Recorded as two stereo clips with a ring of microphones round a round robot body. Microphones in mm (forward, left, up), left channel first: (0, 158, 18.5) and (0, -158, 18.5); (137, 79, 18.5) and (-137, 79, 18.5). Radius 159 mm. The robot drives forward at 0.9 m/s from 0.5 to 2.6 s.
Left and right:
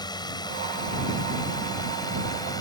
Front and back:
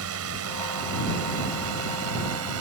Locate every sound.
0.0 s a drone: 165° left